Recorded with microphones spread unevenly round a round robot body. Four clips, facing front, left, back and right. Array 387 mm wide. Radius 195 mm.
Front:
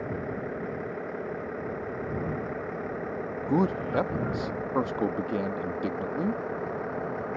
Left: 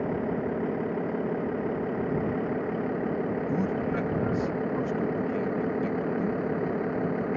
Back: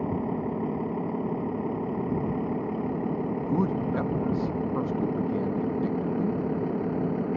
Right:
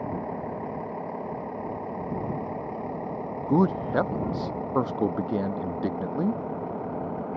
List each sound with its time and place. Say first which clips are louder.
0.0 s a vehicle: left 3 dB, back 4 dB; 155° left; by 7.4 s 165° left
3.5 s a man speaking: right 4 dB, front 3 dB; 45° right